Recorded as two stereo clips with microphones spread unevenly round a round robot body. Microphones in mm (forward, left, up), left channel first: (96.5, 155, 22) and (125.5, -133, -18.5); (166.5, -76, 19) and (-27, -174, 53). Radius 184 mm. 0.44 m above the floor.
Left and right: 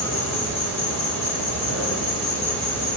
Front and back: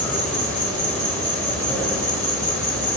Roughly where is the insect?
Behind left.